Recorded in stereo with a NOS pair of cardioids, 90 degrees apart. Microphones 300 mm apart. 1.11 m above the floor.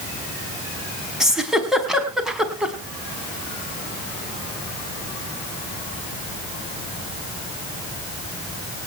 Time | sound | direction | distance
1.2 | a giggle | straight ahead | 4.5 m